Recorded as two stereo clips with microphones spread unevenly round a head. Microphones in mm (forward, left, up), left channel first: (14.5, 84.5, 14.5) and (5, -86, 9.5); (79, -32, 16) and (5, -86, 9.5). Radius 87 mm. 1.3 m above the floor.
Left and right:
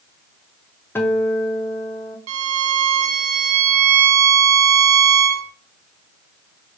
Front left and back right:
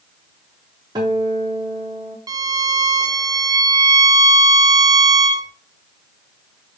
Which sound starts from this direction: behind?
A guitar, at 0.9 s.